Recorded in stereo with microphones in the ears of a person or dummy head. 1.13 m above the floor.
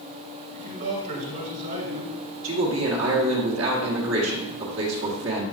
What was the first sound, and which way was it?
A man speaking, 50° right (ahead or behind).